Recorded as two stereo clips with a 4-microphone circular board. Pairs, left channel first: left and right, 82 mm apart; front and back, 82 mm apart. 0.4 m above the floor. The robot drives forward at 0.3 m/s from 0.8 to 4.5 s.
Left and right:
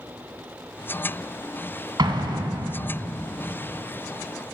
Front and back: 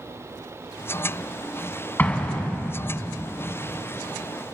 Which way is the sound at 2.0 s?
70° right.